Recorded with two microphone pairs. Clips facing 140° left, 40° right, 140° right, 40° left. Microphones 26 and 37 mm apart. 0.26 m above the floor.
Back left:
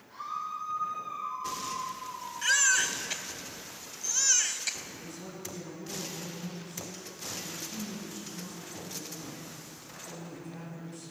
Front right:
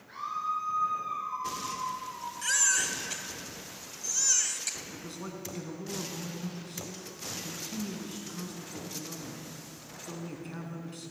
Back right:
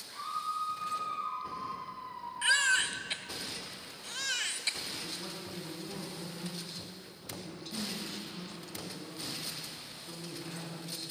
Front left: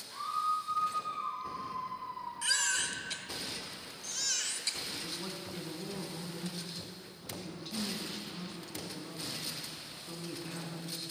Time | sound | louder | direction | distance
0.1 | a scream | front right 4 dB, front left 3 dB | 80° right | 4.5 m
2.4 | a baby crying | back left 3 dB, back right 6 dB | 160° right | 0.8 m
4.9 | a man speaking | front right 2 dB, even | 45° right | 3 m